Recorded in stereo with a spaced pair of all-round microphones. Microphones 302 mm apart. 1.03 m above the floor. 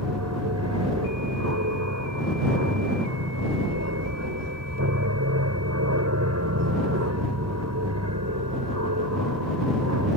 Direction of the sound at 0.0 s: 60° right (ahead or behind).